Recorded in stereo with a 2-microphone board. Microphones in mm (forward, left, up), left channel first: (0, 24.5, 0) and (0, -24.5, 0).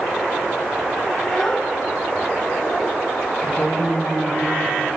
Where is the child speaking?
10° left (ahead or behind), 1.3 m; by 3.0 s 55° left (ahead or behind), 1.5 m.